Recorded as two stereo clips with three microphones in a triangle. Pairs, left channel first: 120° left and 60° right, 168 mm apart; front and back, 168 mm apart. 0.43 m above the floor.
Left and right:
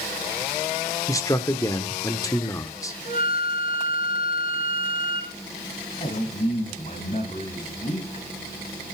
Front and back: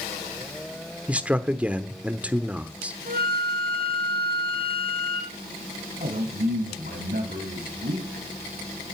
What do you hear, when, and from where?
1.1 s a man speaking: 115° left, 1.0 m
3.0 s a flute: 155° left, 5 m
6.0 s a man speaking: 160° left, 2.5 m